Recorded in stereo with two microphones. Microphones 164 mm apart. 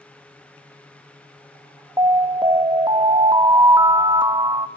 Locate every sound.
2.0 s an alarm: 25° right (ahead or behind), 1.1 m